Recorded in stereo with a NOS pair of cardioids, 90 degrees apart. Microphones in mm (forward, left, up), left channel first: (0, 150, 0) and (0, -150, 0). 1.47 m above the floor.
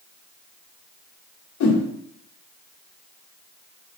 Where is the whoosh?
70° left, 2 m.